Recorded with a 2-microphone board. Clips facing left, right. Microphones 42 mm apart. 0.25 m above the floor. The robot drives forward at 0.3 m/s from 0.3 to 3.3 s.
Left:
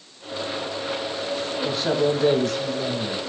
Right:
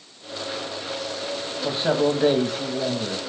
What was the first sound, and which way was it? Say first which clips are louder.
A man speaking: right 1 dB; 20° right (ahead or behind).